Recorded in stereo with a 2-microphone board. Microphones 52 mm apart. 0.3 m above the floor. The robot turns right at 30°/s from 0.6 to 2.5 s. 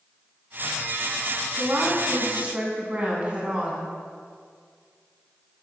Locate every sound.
1.6 s a woman speaking: 45° right (ahead or behind), 3 m; by 3.9 s 25° right (ahead or behind), 3 m